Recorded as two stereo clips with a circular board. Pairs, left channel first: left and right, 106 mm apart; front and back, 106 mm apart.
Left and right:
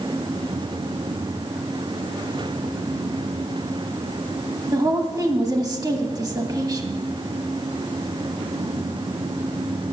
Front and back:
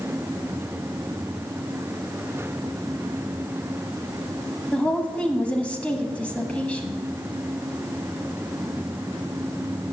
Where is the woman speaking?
70° right, 1.3 m.